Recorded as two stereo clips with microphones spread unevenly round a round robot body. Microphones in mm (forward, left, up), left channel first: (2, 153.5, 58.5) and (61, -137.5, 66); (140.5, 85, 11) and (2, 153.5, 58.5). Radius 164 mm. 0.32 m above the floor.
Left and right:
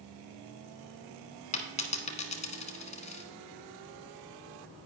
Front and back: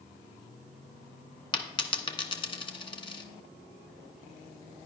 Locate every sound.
1.5 s a dropped coin: 35° left, 1.3 m